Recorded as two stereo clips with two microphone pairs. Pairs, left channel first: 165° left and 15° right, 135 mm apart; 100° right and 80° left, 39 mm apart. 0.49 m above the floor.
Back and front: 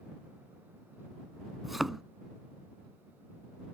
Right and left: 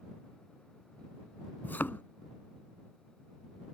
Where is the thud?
105° right.